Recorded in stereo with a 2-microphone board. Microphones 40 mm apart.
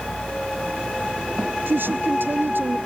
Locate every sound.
1.7 s a woman speaking: 65° right (ahead or behind)